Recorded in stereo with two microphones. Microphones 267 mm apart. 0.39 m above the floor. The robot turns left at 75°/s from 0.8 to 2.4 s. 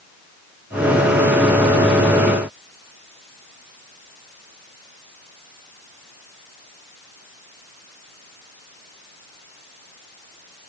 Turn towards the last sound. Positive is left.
No sound to turn to.